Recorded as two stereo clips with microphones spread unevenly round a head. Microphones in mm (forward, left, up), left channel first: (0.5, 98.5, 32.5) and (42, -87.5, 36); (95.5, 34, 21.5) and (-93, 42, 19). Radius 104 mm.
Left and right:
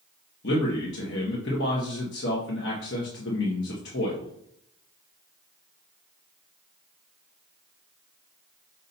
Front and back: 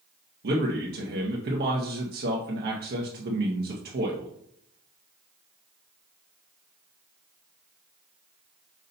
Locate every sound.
0.4 s a man speaking: 140° left, 1.5 m